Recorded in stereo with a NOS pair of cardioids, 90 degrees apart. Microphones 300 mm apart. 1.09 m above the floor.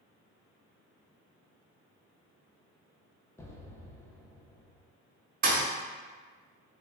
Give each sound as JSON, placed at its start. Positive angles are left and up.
{"t": 3.4, "sound": "an explosion", "azimuth_deg": 10, "distance_m": 0.7}
{"t": 5.4, "sound": "a thud", "azimuth_deg": -30, "distance_m": 1.0}